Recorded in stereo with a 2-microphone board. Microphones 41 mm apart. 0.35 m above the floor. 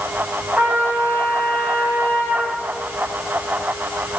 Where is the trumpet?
35° right (ahead or behind), 2 m.